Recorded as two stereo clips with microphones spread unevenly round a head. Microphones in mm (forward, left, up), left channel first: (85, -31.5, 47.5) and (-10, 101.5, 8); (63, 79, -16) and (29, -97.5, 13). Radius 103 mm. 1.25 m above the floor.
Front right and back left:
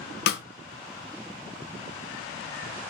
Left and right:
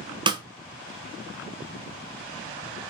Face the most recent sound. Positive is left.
turn(degrees=-35)